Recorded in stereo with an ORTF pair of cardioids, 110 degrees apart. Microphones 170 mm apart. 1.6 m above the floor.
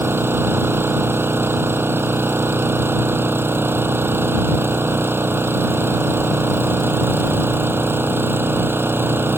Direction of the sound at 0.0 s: 15° right.